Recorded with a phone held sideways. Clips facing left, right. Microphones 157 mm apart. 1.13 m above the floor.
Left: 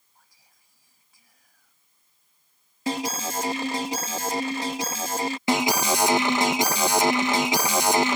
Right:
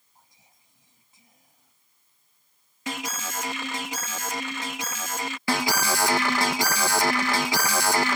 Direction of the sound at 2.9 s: 35° left (ahead or behind).